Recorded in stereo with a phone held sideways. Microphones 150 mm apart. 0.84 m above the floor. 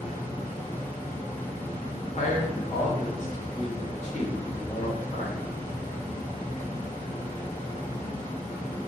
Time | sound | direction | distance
0.0 | a fan | 80° left | 1.3 m
2.2 | a man speaking | 50° left (ahead or behind) | 0.9 m